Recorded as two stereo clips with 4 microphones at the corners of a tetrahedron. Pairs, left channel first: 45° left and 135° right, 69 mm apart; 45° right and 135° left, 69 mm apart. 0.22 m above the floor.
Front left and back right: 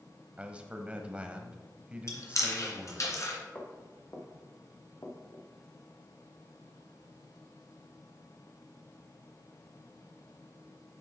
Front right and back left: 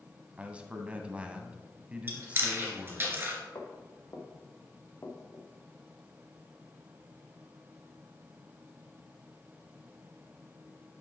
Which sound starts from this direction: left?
Chewing, at 2.1 s.